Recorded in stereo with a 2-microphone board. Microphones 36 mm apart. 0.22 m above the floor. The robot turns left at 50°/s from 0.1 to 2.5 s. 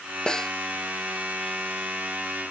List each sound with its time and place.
0.3 s a snare drum: 25° left (ahead or behind); by 0.5 s 10° left (ahead or behind)